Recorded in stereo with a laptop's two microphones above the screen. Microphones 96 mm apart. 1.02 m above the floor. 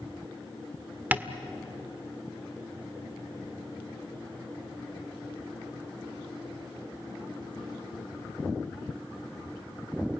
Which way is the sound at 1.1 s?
20° right (ahead or behind).